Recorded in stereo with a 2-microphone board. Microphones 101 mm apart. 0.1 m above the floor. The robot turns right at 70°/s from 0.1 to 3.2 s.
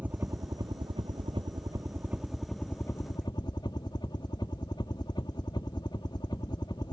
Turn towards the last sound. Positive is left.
turn(degrees=55)